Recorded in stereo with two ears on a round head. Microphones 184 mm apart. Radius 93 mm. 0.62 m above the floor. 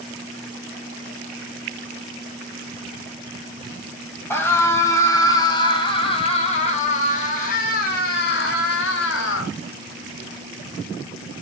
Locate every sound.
4.3 s a scream: 10° left (ahead or behind), 3.5 m; by 9.5 s 75° left (ahead or behind), 3 m